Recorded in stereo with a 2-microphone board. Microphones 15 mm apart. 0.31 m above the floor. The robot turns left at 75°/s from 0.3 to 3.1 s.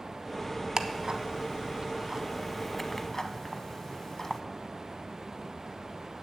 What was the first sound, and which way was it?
Ticking, 35° right (ahead or behind).